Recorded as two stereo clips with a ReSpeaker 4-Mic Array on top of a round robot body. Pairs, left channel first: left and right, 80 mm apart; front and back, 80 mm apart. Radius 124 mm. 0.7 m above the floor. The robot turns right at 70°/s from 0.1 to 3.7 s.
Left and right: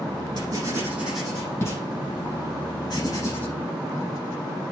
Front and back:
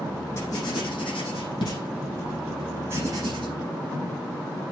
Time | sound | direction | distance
0.4 | writing | 55° right | 7 m